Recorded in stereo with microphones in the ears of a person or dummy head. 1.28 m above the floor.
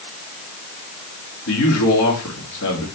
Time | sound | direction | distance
1.5 | a man speaking | 80° left | 2 m